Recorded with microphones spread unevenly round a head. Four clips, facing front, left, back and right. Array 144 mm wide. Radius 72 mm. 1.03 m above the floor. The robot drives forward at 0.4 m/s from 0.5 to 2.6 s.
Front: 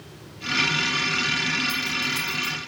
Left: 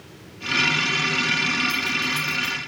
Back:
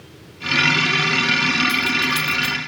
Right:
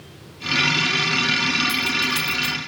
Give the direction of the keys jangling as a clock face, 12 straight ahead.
4 o'clock.